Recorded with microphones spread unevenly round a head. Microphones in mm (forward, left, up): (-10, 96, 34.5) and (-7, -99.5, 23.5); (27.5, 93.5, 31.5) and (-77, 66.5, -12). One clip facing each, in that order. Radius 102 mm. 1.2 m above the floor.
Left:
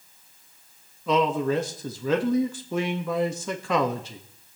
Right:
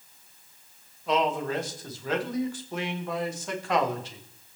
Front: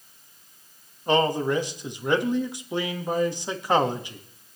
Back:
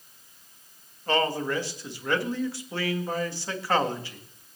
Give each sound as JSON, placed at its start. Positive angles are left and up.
{"t": 1.1, "sound": "a man speaking", "azimuth_deg": 85, "distance_m": 1.5}